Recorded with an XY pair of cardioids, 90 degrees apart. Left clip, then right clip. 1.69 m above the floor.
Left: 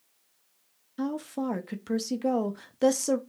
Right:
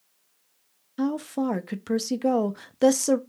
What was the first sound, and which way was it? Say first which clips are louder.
A woman speaking: right 5 dB; 25° right.